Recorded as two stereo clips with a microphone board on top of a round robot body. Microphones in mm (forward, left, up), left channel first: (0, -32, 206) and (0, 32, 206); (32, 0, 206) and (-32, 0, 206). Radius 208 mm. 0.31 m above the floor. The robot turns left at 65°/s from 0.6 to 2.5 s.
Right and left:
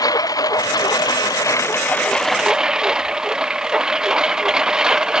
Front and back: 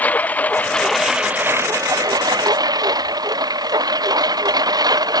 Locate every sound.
0.0 s a lawn mower: 65° right; by 5.2 s 170° left